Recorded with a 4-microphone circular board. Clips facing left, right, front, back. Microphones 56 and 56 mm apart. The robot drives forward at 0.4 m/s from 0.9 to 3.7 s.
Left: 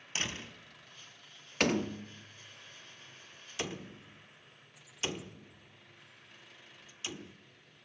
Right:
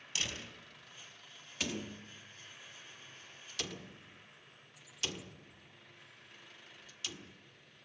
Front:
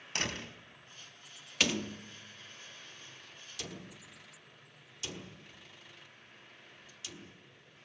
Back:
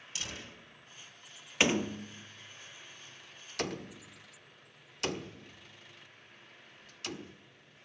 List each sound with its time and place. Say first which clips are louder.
0.1 s a door slam: left 3 dB, front 7 dB; 30° left, 4 m
1.6 s a door slam: left 10 dB, back 4 dB; 120° left, 0.7 m; by 7.4 s 155° left, 1.3 m